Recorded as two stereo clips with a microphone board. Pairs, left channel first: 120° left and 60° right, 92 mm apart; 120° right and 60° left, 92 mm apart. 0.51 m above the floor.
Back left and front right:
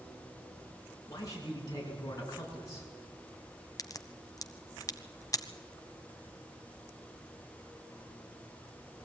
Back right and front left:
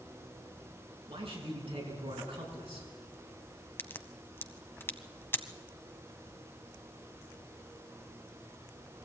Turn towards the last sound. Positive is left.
turn(degrees=175)